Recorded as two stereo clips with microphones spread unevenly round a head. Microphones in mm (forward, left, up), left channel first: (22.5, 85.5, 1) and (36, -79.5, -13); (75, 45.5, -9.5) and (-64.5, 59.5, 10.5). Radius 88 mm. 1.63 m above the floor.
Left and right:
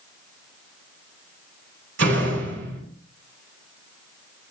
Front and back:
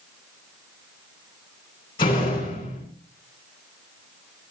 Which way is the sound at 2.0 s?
75° right.